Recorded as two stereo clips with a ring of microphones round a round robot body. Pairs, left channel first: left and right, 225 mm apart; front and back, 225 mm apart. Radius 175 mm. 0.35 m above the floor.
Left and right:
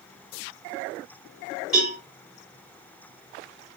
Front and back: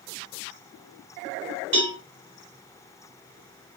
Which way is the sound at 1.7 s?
175° right.